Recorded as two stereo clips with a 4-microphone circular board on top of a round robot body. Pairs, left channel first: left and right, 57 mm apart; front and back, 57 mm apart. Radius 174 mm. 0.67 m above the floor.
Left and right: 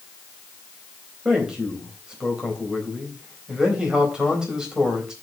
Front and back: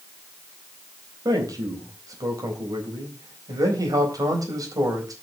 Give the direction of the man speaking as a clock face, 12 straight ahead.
6 o'clock.